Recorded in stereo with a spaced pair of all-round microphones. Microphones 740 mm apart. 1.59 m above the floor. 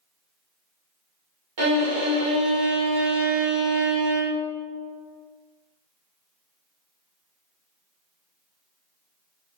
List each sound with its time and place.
1.6 s a violin: 40° right (ahead or behind), 0.9 m